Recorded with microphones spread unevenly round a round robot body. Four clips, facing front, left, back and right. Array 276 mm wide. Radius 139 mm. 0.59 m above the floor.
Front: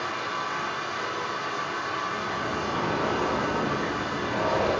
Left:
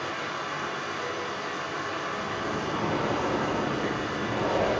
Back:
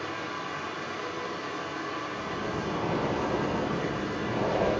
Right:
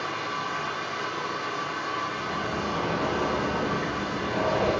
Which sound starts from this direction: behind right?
Running water, at 0.0 s.